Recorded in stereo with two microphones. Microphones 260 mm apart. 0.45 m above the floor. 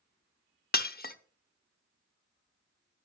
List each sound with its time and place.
0.7 s breaking glass: 35° left (ahead or behind), 0.6 m